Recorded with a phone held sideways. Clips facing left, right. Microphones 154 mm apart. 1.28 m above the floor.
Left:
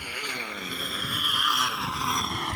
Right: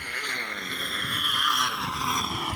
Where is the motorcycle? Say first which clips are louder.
Left 1 dB; 10° left (ahead or behind); by 2.6 s 5° right (ahead or behind).